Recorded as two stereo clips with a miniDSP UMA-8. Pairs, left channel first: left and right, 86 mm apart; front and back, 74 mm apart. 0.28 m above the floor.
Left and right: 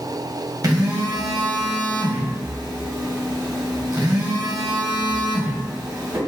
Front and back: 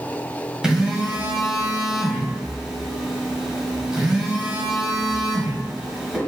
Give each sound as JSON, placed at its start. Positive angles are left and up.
{"t": 0.6, "sound": "a phone buzzing", "azimuth_deg": -100, "distance_m": 1.0}